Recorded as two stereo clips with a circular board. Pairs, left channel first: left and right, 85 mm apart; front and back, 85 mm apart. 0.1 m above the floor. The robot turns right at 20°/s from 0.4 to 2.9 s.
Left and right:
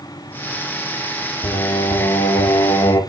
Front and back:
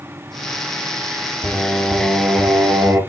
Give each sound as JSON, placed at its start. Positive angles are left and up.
{"t": 1.4, "sound": "singing", "azimuth_deg": 90, "distance_m": 3.0}